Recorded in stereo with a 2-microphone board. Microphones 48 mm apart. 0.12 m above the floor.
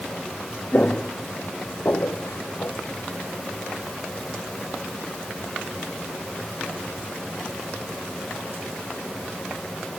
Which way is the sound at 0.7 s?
40° left (ahead or behind).